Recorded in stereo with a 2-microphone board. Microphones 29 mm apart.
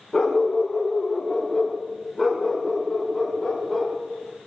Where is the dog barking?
25° left (ahead or behind), 8.5 m; by 3.9 s 5° left (ahead or behind), 13.5 m.